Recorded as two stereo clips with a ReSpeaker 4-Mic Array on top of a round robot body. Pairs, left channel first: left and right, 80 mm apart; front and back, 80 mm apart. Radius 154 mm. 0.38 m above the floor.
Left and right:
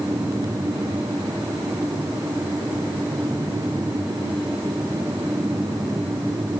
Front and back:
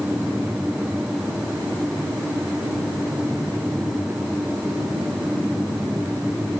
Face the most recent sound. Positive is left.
No sound to turn to.